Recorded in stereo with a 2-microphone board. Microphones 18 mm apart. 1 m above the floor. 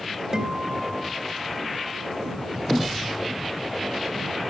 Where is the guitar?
35° right (ahead or behind).